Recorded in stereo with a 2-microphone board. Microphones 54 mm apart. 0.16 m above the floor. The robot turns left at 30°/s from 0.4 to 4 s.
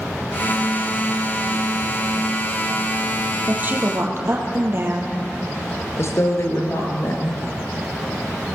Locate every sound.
3.5 s a woman speaking: 30° right (ahead or behind), 4 m; by 5.2 s 45° right (ahead or behind), 4 m
6.0 s a woman speaking: 55° left (ahead or behind), 3.5 m